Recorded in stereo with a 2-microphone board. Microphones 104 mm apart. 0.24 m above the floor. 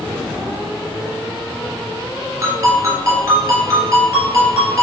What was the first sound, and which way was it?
A ringtone, 30° right (ahead or behind).